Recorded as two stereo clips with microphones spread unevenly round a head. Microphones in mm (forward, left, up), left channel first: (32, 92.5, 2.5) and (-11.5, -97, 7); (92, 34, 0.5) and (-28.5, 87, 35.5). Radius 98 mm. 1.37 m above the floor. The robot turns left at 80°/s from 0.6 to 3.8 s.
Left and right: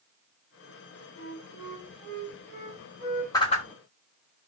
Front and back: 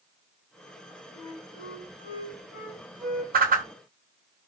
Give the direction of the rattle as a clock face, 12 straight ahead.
I don't hear a rattle.